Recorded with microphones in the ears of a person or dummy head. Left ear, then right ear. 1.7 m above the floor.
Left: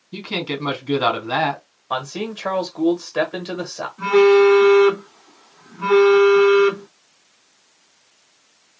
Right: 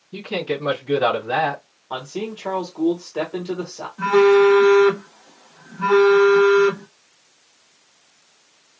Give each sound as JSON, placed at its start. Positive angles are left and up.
{"t": 0.1, "sound": "a man speaking", "side_deg": 25, "distance_m": 2.5}
{"t": 1.9, "sound": "a man speaking", "side_deg": 25, "distance_m": 1.3}
{"t": 4.0, "sound": "a phone buzzing", "side_deg": -15, "distance_m": 1.1}